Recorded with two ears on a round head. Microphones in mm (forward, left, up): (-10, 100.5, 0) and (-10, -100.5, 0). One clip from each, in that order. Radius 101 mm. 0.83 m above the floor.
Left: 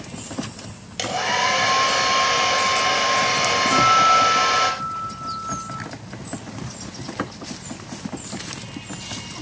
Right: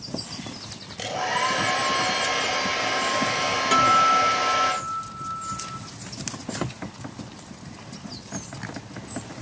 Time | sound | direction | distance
1.0 | a hair dryer | 40° left (ahead or behind) | 5 m
3.7 | a guitar | 35° right (ahead or behind) | 3 m